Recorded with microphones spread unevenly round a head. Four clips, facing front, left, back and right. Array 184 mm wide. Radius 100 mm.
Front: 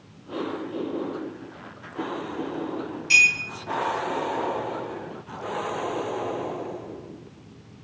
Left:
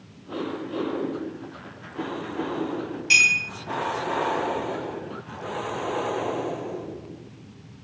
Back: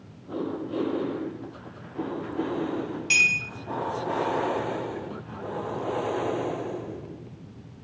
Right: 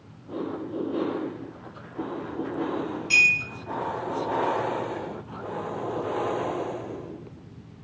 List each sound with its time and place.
3.1 s a clink: 130° left, 3 m